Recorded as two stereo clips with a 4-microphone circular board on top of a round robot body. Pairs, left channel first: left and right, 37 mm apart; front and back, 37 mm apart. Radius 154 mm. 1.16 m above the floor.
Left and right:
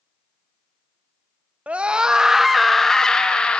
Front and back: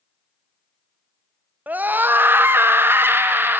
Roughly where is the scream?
Behind right.